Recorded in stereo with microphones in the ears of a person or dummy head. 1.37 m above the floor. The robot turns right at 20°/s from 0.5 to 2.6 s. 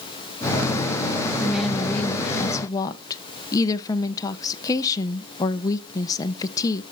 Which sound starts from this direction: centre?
A woman speaking, at 1.4 s.